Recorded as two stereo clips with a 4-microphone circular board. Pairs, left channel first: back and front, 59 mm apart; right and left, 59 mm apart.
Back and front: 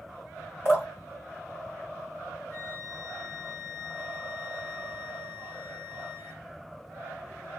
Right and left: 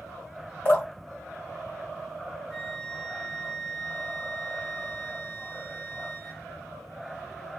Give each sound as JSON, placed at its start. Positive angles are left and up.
{"t": 0.7, "sound": "dripping", "azimuth_deg": -140, "distance_m": 2.5}
{"t": 2.5, "sound": "a flute", "azimuth_deg": 180, "distance_m": 1.4}